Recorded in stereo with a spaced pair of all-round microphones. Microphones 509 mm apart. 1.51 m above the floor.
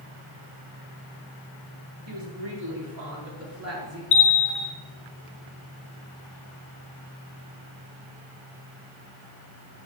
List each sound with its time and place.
2.1 s a woman speaking: 60° right (ahead or behind), 3.5 m; by 4.0 s 30° right (ahead or behind), 5 m
4.1 s a bell: 70° left (ahead or behind), 1.2 m